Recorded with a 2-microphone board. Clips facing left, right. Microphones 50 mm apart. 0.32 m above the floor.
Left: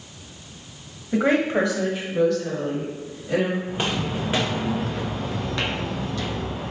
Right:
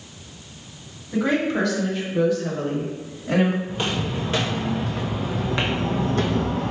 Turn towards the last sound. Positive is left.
turn(degrees=-65)  # may be behind; listen again after turning